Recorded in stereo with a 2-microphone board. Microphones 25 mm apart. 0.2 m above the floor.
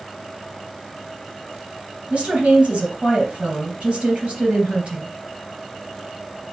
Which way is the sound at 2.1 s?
60° right (ahead or behind).